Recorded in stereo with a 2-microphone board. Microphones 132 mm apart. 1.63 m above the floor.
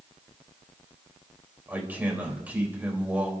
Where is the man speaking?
15° right (ahead or behind), 4 m.